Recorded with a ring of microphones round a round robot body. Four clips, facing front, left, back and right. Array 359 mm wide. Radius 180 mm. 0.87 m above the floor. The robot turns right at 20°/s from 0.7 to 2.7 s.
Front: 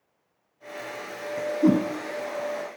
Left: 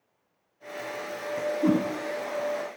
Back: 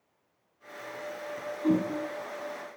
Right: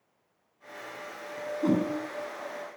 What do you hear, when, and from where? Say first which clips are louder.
1.6 s a whoosh: left 2 dB, front 6 dB; 15° left, 8.5 m; by 1.8 s 20° left, 8.5 m